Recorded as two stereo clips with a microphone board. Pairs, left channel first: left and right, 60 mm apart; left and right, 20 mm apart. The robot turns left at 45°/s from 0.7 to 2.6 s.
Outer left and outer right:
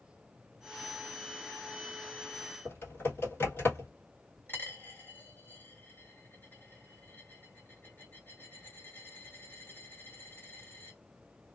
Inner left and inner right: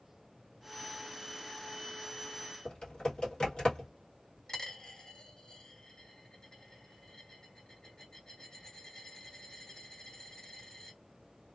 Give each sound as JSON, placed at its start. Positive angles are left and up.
{"t": 2.6, "sound": "typing on a keyboard", "side_deg": 40, "distance_m": 1.7}
{"t": 4.5, "sound": "a dropped coin", "side_deg": 30, "distance_m": 2.5}